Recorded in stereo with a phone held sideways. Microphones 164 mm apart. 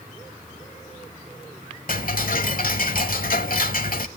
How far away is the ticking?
About 1.1 m.